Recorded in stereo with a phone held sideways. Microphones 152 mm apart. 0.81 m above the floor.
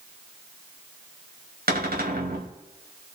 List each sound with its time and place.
1.7 s a cupboard door: 80° right, 2.5 m